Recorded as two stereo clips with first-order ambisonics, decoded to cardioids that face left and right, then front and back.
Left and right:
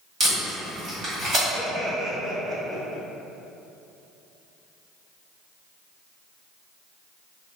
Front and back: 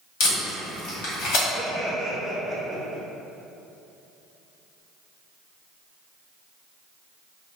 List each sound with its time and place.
0.2 s tape being pulled: 20° right, 1.5 m
1.5 s laughter: 90° right, 0.9 m